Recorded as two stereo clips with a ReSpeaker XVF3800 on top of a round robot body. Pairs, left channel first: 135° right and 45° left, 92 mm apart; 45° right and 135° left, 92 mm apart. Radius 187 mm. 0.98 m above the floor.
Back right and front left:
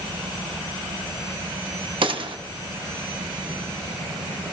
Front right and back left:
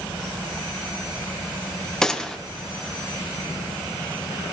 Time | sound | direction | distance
2.0 | a gunshot | 35° left | 1.4 m